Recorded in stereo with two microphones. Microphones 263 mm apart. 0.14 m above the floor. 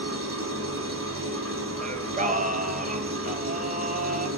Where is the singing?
30° right (ahead or behind), 0.7 m.